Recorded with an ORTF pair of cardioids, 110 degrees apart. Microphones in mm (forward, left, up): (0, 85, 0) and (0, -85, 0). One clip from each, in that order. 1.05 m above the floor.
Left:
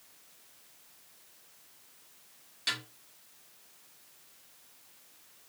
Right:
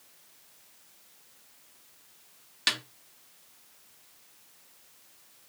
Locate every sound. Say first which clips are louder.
2.7 s a snare drum: right 5 dB; 55° right, 0.9 m